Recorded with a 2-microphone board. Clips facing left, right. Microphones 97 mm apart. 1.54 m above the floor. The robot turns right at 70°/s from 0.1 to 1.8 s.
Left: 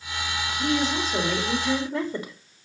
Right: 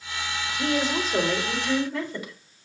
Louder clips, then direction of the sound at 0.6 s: Even; 50° right.